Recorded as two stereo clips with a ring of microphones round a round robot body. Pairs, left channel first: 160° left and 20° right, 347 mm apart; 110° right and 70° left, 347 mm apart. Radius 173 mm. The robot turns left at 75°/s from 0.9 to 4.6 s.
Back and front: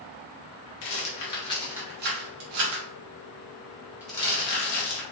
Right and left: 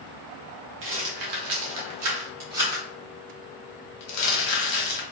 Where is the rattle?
125° left, 1.1 m; by 5.0 s 150° right, 1.1 m.